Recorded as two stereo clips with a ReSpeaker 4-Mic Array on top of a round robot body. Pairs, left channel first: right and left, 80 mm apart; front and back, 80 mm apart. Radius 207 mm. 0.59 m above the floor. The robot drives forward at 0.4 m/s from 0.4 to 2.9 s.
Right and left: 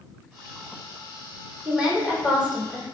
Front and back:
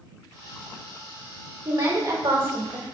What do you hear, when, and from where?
1.6 s a woman speaking: 165° left, 3 m